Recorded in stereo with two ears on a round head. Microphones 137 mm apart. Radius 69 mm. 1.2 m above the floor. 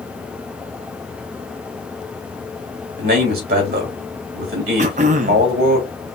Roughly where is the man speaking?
Right.